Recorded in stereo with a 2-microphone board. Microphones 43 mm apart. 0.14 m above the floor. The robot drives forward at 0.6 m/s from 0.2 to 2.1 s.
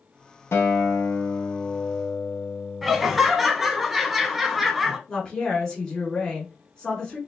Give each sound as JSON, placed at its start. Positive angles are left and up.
{"t": 0.5, "sound": "a guitar", "side_deg": 75, "distance_m": 1.1}
{"t": 2.8, "sound": "laughter", "side_deg": -5, "distance_m": 1.0}
{"t": 5.1, "sound": "a woman speaking", "side_deg": 15, "distance_m": 1.3}